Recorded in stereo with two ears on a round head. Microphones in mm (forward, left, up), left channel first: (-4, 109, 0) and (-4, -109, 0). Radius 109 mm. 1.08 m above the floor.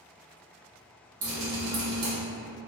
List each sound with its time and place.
1.2 s dripping: 60° right (ahead or behind), 1.7 m